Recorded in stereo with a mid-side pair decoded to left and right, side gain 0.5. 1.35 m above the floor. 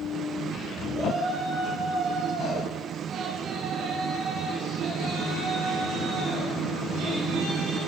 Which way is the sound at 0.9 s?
45° right.